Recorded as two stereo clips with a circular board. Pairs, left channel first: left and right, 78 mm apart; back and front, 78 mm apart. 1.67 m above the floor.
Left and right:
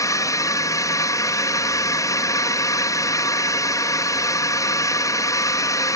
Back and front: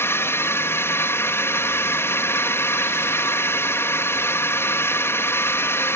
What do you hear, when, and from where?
0.0 s a drone: 125° left